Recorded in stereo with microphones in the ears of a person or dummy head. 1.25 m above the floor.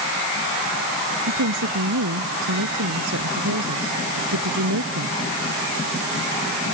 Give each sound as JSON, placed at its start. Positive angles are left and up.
{"t": 1.3, "sound": "a woman speaking", "side_deg": -70}